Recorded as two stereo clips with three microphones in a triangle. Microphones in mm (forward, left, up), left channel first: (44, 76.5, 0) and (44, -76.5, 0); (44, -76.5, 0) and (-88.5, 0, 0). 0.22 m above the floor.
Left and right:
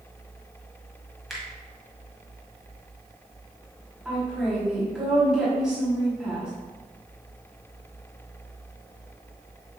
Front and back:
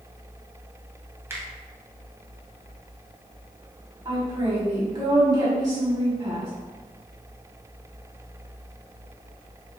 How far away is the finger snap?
About 1.3 m.